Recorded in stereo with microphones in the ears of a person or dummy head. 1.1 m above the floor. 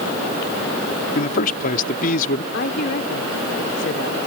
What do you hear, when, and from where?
1.1 s a man speaking: 50° left (ahead or behind)
2.5 s a woman speaking: 60° left (ahead or behind)